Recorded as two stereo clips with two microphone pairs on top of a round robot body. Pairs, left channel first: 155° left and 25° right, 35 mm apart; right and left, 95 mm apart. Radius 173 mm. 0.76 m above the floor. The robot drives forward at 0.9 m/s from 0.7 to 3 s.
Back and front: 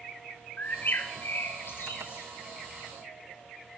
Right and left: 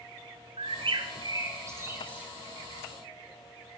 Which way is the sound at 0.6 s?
115° left.